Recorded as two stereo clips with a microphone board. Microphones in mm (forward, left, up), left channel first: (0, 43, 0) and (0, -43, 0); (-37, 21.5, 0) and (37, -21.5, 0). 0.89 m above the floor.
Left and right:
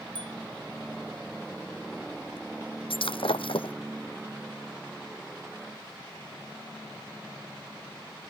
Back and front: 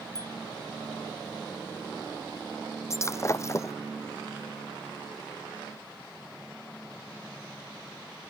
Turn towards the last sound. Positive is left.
turn(degrees=95)